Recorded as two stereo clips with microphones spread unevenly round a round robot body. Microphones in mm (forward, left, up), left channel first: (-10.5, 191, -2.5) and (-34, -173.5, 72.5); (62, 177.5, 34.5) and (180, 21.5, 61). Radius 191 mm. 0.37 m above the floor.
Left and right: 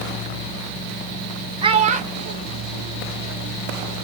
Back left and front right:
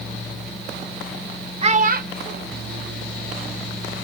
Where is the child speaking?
5° right, 0.6 m; by 3.6 s 25° right, 1.9 m.